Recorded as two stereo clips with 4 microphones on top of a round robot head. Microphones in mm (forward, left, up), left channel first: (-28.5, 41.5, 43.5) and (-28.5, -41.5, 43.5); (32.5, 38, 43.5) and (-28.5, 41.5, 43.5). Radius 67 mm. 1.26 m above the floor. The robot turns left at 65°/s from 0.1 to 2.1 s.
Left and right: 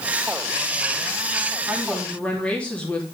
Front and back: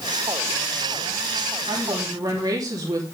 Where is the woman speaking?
165° right, 3 m; by 3.0 s 165° left, 3 m.